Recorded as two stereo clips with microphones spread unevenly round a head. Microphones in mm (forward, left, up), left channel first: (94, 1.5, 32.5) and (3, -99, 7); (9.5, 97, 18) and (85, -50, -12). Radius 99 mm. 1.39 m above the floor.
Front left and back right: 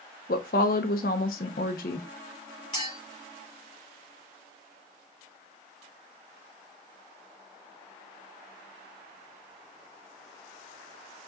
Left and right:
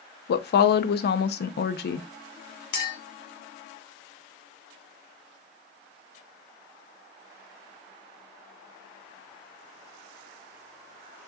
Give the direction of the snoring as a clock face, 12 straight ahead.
No snoring in this recording.